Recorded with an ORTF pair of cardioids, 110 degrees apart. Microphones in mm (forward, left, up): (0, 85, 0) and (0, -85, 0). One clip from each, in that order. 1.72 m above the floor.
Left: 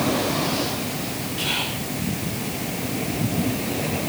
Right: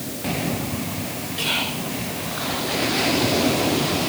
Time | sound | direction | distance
1.4 | whispering | 10° right | 5.5 m